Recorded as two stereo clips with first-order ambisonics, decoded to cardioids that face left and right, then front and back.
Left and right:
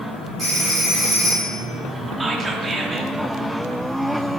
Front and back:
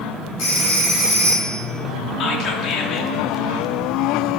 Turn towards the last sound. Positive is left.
turn(degrees=-15)